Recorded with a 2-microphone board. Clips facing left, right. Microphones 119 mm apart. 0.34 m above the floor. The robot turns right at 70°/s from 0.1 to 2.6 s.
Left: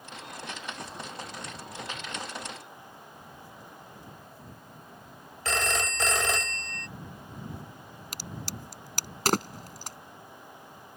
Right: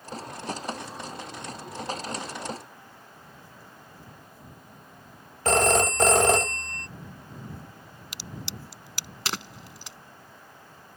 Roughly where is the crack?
Left.